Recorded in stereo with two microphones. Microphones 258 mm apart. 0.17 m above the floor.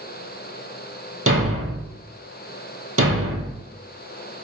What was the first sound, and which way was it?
A thud, 60° right (ahead or behind).